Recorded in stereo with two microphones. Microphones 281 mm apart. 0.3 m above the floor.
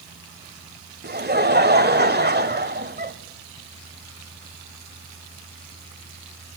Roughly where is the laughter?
Right.